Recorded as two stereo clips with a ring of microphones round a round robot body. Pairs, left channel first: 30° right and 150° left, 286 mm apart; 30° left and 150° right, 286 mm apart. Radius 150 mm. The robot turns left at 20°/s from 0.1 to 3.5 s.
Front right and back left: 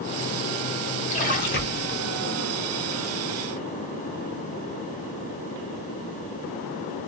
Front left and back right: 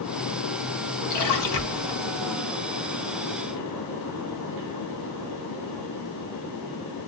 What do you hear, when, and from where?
1.1 s a splash: 35° left, 2 m; by 2.0 s 15° left, 2 m